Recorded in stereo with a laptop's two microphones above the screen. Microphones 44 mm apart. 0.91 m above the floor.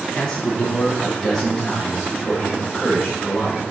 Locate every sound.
0.1 s a man speaking: 20° left (ahead or behind), 0.9 m; by 3.6 s centre (ahead or behind), 2.5 m